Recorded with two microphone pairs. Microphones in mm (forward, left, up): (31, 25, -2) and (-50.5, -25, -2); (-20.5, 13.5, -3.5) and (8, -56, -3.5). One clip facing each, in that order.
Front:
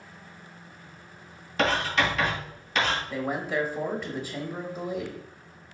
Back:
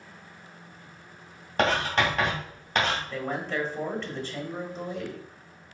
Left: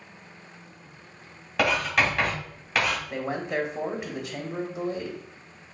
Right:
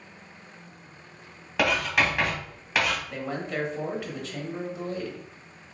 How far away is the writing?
About 1.8 m.